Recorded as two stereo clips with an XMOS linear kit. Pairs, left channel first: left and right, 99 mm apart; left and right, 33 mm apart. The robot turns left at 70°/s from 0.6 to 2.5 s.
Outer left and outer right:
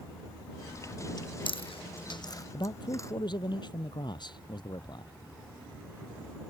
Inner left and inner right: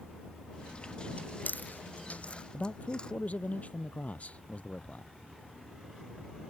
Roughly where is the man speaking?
Left.